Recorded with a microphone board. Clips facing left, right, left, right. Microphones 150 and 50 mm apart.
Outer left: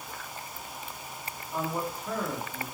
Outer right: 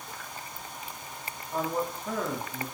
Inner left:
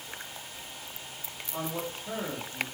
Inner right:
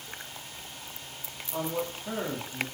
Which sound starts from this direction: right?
A man speaking, at 1.5 s.